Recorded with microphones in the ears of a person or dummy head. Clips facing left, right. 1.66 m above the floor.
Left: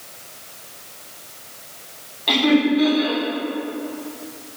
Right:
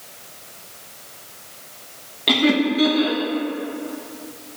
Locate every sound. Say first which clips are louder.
2.3 s laughter: left 2 dB; 45° right (ahead or behind), 2.5 m